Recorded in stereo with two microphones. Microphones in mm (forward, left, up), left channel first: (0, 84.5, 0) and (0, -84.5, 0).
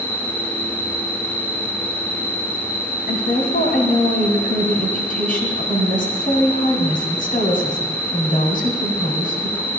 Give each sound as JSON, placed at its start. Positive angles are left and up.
{"t": 0.0, "sound": "an insect", "side_deg": 65, "distance_m": 3.5}
{"t": 3.1, "sound": "a woman speaking", "side_deg": 55, "distance_m": 2.5}